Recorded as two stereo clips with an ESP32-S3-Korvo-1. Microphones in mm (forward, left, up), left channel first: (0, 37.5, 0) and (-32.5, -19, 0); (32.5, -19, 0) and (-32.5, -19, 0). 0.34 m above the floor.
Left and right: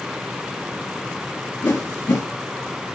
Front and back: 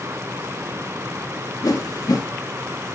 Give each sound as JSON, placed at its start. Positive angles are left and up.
{"t": 1.6, "sound": "a whoosh", "azimuth_deg": 25, "distance_m": 3.0}